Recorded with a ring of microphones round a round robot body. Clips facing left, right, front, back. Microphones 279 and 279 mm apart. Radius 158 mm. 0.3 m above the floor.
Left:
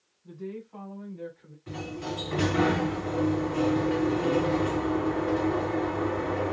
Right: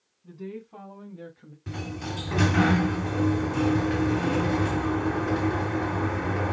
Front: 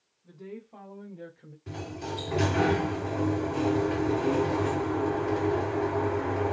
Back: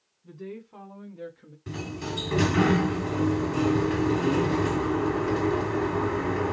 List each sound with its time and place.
0.2 s a woman speaking: 120° right, 2 m; by 1.6 s 100° right, 1.4 m
1.7 s a sliding door: 120° right, 2.5 m